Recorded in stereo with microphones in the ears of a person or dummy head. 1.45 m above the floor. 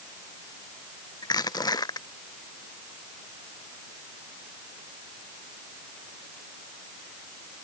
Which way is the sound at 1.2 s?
20° left (ahead or behind).